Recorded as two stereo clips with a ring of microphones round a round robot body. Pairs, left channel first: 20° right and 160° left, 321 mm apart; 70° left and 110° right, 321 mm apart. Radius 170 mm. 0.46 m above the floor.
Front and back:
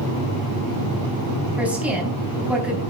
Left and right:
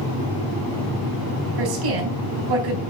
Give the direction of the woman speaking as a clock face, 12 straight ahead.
4 o'clock.